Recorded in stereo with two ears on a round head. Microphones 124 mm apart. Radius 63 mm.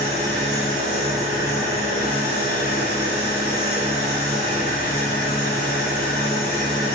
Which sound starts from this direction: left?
An engine running, at 0.0 s.